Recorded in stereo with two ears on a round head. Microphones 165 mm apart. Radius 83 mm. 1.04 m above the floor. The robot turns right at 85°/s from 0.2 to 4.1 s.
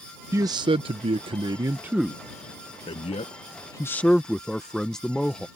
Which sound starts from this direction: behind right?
A man speaking, at 0.3 s.